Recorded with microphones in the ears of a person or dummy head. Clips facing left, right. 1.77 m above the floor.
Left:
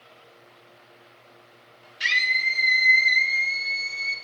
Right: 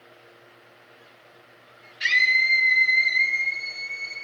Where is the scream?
55° left (ahead or behind), 1.6 m; by 4.2 s 80° left, 2.5 m.